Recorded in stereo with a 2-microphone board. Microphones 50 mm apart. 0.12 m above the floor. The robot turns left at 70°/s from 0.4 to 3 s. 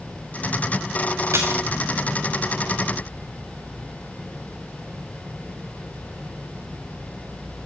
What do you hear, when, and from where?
1.3 s a splash: 85° right, 2.5 m; by 1.6 s 70° right (ahead or behind), 2.5 m